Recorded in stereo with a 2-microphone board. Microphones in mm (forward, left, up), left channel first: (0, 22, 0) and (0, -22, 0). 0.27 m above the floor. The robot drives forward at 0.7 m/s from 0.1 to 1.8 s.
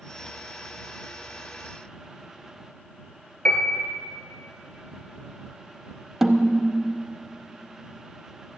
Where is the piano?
25° left (ahead or behind), 1.4 m.